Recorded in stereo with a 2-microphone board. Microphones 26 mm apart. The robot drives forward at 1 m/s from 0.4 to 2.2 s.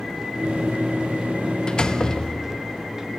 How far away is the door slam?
About 1.5 m.